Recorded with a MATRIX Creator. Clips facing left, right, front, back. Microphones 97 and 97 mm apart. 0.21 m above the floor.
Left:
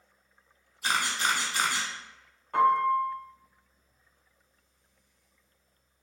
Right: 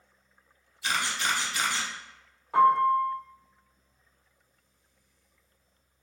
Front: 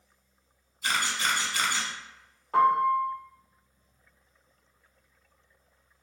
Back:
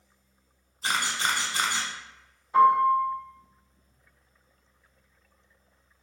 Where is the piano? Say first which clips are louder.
Right 2 dB, back 3 dB; 5° right, 1.4 m.